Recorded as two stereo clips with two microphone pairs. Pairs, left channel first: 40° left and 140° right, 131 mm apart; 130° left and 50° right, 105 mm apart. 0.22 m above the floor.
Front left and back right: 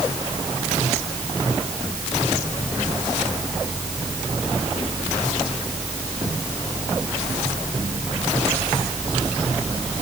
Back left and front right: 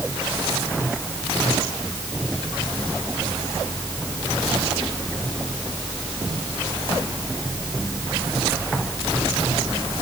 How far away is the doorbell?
No doorbell in this recording.